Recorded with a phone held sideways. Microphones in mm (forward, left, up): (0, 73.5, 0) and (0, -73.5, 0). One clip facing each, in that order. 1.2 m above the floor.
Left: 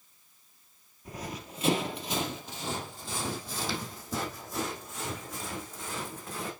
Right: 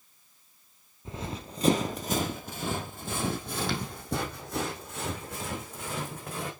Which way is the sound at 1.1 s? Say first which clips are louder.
Right 2 dB; 20° right (ahead or behind).